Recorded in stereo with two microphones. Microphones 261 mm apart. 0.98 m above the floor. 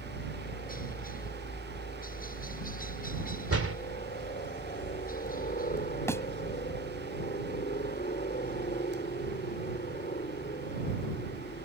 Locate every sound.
0.0 s a helicopter: 35° left (ahead or behind)
3.5 s a door slam: 60° right (ahead or behind)
6.1 s a thud: 10° left (ahead or behind)